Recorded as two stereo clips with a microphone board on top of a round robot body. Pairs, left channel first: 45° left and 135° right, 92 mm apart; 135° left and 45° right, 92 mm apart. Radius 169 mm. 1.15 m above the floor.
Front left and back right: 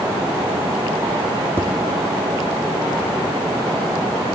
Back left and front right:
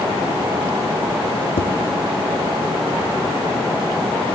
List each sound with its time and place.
1.6 s tapping: 155° left, 0.7 m